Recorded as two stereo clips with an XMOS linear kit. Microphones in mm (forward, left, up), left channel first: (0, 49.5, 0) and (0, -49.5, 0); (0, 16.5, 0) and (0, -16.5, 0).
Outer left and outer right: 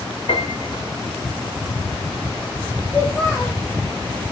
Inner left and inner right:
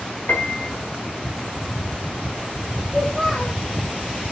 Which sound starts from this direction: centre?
A child speaking, at 2.9 s.